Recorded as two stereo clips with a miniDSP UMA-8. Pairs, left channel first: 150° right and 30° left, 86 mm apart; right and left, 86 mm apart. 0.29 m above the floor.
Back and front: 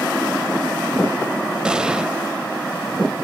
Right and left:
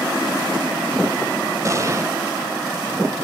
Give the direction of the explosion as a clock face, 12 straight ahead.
9 o'clock.